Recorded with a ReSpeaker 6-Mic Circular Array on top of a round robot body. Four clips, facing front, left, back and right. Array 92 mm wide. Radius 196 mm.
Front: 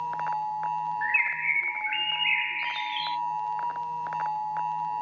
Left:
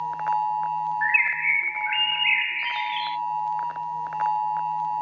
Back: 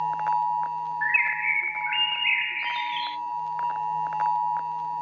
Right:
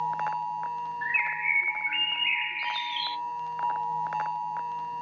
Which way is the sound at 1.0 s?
105° left.